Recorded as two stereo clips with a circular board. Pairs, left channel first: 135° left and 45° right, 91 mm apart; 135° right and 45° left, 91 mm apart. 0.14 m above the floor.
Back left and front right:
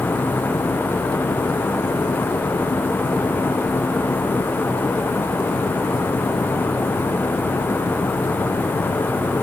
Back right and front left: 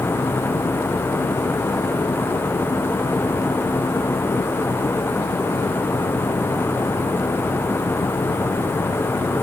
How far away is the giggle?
No giggle in this recording.